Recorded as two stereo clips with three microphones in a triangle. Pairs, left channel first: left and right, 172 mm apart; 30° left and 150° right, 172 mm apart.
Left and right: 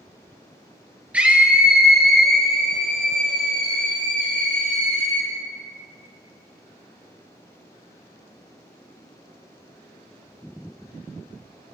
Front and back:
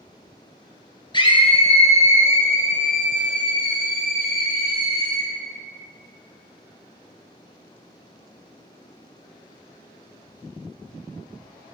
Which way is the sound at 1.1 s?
15° right.